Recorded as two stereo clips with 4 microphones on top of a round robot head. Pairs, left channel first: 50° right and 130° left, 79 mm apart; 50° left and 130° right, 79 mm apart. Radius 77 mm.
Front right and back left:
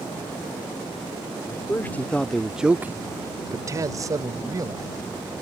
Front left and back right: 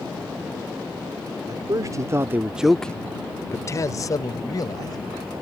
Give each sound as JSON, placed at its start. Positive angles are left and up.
{"t": 1.5, "sound": "a man speaking", "azimuth_deg": -105}